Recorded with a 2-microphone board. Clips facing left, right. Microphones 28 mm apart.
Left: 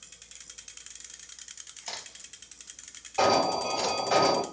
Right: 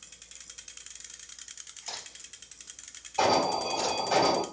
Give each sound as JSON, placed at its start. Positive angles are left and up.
{"t": 1.9, "sound": "a crack", "side_deg": 45, "distance_m": 3.0}
{"t": 3.2, "sound": "an alarm", "side_deg": 25, "distance_m": 3.5}